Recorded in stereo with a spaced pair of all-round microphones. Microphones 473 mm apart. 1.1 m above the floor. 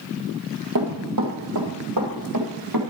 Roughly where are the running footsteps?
Right.